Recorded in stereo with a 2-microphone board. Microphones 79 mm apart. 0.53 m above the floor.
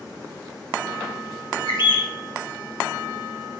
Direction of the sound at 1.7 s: 70° left (ahead or behind).